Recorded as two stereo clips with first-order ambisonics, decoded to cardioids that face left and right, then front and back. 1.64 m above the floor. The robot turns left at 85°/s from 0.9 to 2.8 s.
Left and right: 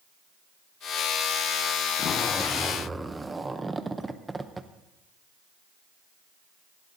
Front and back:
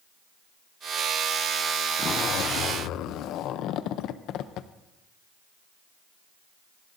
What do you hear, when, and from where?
2.0 s a zipper: 55° left, 0.6 m; by 4.7 s 15° right, 0.6 m